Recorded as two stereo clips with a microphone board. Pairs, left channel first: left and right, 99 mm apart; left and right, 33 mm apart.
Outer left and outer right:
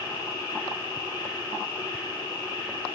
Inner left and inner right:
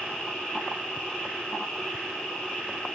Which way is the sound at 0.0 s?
35° left (ahead or behind).